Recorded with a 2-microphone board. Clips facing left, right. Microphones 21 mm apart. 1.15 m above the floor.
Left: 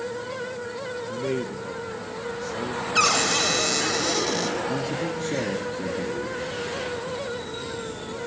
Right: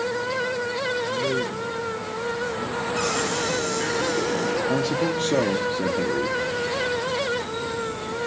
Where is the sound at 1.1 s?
10° left (ahead or behind), 1.1 m; by 4.0 s 70° left (ahead or behind), 2 m.